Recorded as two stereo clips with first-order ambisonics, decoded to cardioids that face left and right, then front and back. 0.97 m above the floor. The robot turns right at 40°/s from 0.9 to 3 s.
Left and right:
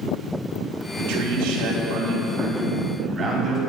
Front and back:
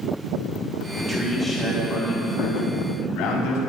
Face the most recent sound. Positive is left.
turn(degrees=-35)